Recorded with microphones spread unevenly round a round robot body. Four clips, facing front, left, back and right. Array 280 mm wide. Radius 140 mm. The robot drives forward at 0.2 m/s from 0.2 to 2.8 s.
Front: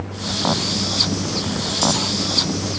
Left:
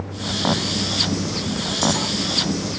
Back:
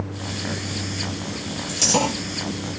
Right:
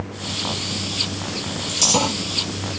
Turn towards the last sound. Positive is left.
turn(degrees=-135)